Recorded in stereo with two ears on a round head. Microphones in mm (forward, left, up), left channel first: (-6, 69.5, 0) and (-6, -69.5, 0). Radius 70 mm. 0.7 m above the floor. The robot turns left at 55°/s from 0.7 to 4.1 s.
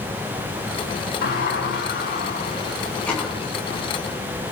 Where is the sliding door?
110° left, 6.5 m; by 3.3 s 5° right, 6.5 m.